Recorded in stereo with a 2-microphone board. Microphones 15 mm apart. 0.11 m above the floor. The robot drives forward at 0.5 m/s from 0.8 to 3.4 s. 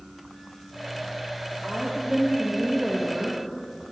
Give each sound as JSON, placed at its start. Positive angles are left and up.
{"t": 1.6, "sound": "a woman speaking", "side_deg": -30, "distance_m": 2.5}